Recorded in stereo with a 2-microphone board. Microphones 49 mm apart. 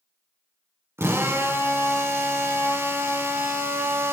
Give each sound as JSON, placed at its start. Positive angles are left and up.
{"t": 1.0, "sound": "a drill", "side_deg": -55, "distance_m": 3.0}